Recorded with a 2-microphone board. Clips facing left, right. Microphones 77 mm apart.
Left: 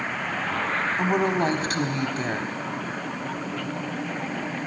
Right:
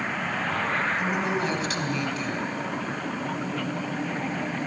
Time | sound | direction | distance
1.0 | a woman speaking | 40° left (ahead or behind) | 1.2 m